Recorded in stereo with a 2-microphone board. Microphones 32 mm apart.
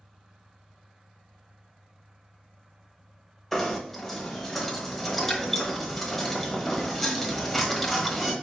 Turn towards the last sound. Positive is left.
turn(degrees=10)  # may be behind; listen again after turning